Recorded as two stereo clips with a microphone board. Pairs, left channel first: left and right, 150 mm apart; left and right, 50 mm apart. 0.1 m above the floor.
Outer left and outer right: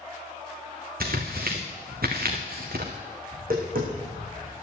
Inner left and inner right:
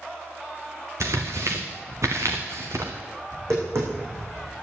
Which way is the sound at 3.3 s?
75° right (ahead or behind).